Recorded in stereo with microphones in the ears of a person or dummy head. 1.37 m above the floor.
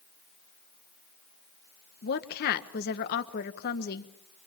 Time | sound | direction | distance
2.0 | a woman speaking | 55° left (ahead or behind) | 1.5 m